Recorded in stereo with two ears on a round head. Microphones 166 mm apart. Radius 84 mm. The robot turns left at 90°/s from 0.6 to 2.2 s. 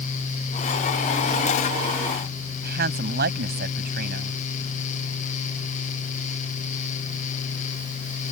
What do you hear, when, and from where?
2.6 s a woman speaking: 60° right (ahead or behind)